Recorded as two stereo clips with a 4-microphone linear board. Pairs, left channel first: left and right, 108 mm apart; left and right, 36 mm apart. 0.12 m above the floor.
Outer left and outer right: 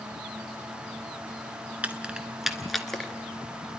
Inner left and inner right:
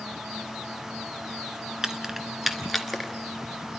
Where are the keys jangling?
10° right (ahead or behind), 1.0 m; by 3.1 s 5° left (ahead or behind), 1.3 m.